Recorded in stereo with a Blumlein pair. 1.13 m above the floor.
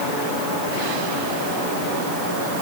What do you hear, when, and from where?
Only background noise.